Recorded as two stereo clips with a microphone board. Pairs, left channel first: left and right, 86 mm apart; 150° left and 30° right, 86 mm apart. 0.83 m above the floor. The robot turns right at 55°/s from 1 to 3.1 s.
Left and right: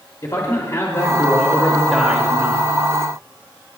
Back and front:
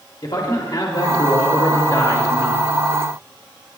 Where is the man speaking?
135° left, 2 m; by 2.7 s 135° right, 2 m.